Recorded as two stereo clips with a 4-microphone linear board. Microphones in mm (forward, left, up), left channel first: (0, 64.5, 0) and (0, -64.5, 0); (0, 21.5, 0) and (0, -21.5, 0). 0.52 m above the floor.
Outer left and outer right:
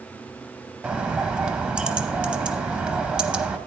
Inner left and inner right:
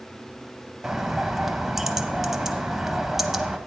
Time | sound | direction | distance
0.8 | a bird | 10° right (ahead or behind) | 0.7 m